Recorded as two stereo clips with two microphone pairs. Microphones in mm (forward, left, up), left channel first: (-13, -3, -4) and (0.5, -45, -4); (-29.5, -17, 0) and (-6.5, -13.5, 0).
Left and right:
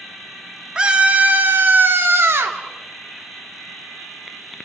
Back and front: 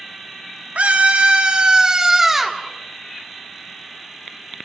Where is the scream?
5° right, 2.5 m; by 2.6 s 70° right, 3 m.